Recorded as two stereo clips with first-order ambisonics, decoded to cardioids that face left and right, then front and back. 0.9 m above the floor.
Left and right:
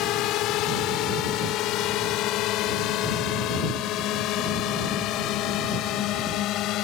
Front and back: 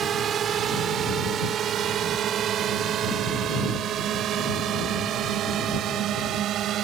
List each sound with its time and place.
0.0 s a drone: 120° left; by 6.8 s 130° left